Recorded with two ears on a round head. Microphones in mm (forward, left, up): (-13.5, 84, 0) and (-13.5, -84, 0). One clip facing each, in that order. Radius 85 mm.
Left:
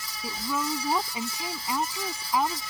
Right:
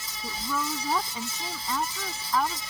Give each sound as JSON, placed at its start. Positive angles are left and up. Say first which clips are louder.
{"t": 0.2, "sound": "a woman speaking", "louder": "left 1 dB", "side_deg": 10}